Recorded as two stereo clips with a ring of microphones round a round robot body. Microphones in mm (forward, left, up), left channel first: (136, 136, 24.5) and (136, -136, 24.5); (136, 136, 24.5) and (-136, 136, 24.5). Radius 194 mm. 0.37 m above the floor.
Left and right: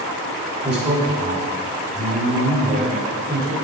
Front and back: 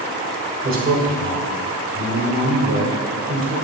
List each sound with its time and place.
0.6 s a man speaking: 145° right, 1.7 m